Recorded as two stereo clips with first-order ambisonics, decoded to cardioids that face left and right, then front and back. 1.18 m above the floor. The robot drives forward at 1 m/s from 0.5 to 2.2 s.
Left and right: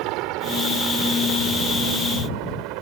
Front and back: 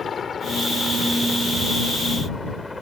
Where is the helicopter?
70° right; by 2.8 s 85° right.